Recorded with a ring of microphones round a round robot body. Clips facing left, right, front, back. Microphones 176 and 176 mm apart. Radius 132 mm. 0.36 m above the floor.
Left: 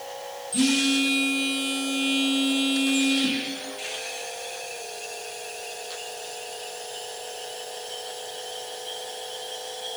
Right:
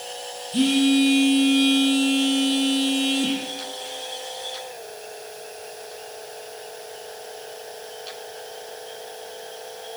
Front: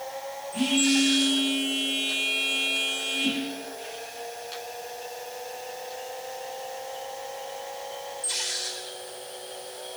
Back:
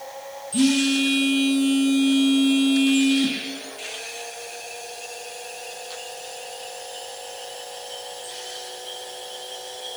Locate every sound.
0.5 s a phone buzzing: 150° right, 8.5 m